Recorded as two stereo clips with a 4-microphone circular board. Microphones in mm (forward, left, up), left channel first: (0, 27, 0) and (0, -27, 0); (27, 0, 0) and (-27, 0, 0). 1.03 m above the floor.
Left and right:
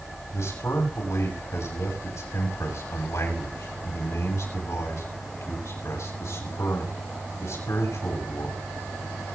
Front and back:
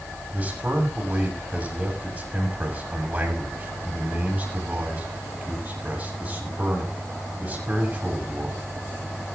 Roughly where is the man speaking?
Behind left.